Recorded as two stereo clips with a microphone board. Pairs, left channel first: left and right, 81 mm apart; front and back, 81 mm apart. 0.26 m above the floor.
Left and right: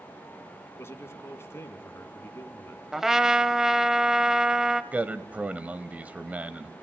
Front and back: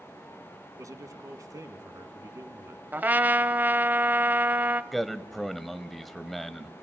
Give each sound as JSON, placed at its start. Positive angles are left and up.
{"t": 0.8, "sound": "a man speaking", "azimuth_deg": 145, "distance_m": 2.5}
{"t": 2.9, "sound": "a trumpet", "azimuth_deg": -165, "distance_m": 0.8}
{"t": 4.9, "sound": "a man speaking", "azimuth_deg": -85, "distance_m": 0.9}